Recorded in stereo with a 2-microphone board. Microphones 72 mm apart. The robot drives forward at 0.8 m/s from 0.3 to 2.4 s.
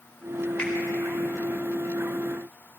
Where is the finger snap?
15° left (ahead or behind), 3.5 m.